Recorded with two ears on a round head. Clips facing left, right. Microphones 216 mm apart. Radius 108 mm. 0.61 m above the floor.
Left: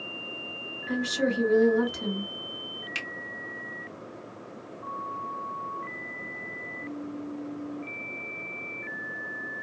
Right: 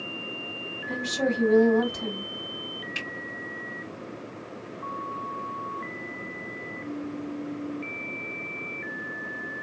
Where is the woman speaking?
60° left (ahead or behind), 2 m.